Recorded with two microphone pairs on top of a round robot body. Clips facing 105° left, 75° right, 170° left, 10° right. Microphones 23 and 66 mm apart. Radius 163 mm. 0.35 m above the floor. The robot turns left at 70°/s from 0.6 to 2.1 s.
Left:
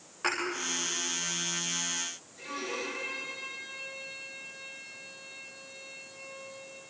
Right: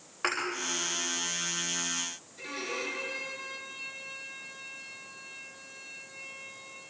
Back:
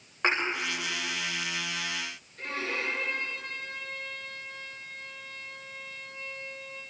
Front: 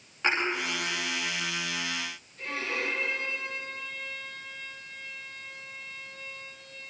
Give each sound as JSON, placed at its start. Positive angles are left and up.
{"t": 0.2, "sound": "a thud", "azimuth_deg": -140, "distance_m": 9.5}
{"t": 2.4, "sound": "a violin", "azimuth_deg": -155, "distance_m": 9.0}